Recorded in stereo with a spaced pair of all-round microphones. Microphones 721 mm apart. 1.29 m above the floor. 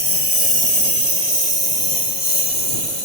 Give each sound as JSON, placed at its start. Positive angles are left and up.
{"t": 0.0, "sound": "a lawn mower", "side_deg": 50}